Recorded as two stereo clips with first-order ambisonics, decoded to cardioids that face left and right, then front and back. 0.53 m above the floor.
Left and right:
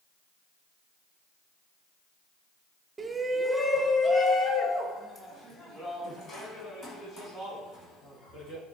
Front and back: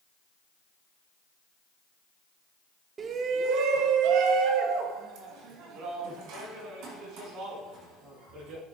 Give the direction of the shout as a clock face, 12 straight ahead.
5 o'clock.